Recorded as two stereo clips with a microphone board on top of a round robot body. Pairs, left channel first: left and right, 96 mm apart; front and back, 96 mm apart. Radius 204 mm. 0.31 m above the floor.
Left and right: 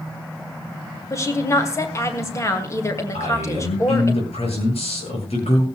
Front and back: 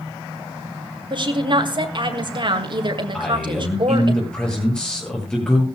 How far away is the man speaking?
About 9.5 m.